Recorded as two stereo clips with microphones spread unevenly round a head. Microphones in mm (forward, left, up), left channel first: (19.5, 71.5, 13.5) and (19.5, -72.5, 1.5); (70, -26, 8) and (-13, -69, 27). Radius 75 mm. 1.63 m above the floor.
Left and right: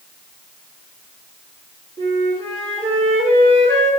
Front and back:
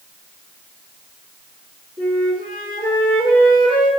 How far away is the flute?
About 1.7 m.